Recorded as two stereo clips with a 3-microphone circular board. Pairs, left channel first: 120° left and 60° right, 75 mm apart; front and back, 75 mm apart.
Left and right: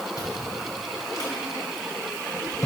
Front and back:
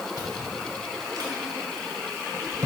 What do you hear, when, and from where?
0.2 s chewing: 155° left, 1.7 m